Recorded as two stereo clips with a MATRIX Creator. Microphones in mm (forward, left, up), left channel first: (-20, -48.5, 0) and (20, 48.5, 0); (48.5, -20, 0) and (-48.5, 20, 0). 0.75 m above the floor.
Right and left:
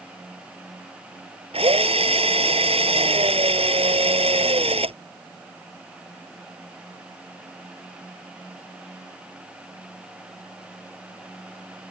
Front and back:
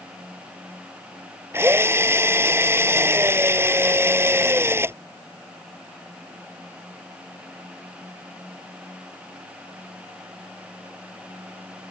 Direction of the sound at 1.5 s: 90° left.